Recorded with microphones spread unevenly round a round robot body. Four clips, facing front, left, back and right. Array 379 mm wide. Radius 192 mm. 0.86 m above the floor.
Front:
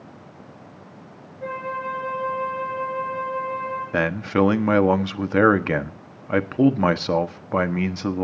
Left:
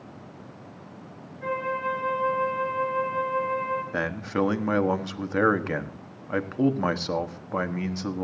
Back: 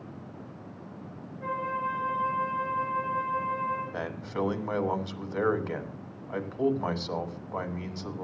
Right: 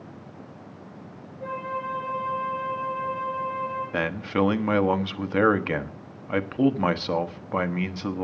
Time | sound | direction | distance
1.4 | a flute | 120° left | 6.5 m
3.9 | a man speaking | 5° right | 1.4 m